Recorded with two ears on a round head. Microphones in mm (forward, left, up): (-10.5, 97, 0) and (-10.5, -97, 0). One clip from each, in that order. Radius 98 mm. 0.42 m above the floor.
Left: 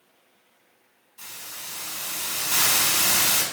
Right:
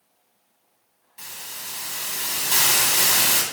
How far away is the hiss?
About 3.5 m.